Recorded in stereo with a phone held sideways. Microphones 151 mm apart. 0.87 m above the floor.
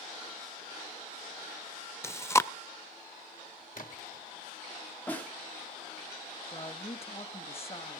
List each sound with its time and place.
2.0 s chewing: 20° left (ahead or behind), 0.5 m
3.8 s a splash: 65° left (ahead or behind), 1.9 m
5.1 s a snare drum: 10° left (ahead or behind), 2 m
6.5 s a woman speaking: 40° left (ahead or behind), 1.2 m